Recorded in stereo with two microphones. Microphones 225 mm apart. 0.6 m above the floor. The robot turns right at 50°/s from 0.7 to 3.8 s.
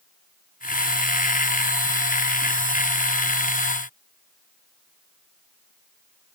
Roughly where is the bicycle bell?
No bicycle bell in this recording.